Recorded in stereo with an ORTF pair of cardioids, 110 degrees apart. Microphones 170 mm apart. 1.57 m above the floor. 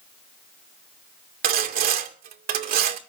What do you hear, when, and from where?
1.4 s sawing: 65° right, 2 m